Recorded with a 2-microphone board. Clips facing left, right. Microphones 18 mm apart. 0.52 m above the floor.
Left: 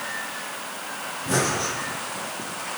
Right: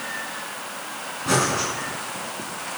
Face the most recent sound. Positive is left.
turn(degrees=-55)  # may be behind; listen again after turning